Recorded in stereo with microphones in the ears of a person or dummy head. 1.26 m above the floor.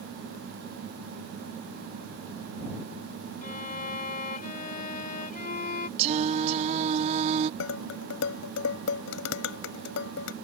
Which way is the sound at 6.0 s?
30° right (ahead or behind).